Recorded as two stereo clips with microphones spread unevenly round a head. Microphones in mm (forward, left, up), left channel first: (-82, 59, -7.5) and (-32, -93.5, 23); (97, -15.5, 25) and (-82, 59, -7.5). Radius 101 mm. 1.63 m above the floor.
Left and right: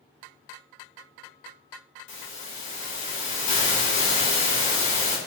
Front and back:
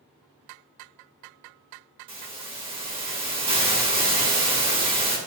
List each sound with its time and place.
2.1 s a hiss: 95° left, 2.5 m